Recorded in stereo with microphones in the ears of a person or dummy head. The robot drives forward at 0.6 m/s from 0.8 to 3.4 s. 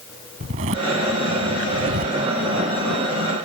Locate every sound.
0.4 s a zipper: 40° right (ahead or behind); by 2.2 s 45° right (ahead or behind)